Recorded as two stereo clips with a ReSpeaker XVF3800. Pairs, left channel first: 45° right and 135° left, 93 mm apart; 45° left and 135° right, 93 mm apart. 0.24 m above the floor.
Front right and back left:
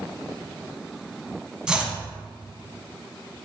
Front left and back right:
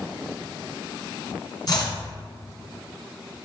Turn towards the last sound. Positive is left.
turn(degrees=55)